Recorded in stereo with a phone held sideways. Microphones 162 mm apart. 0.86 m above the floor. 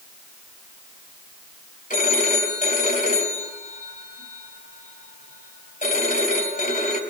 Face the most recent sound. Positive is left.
turn(degrees=55)  # may be behind; listen again after turning